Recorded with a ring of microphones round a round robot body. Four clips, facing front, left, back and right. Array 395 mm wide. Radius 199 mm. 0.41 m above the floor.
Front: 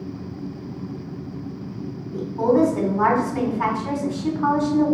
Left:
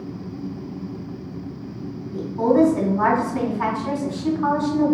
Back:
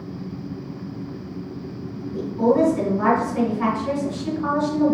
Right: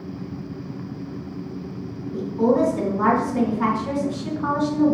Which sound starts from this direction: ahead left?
A woman speaking, at 2.1 s.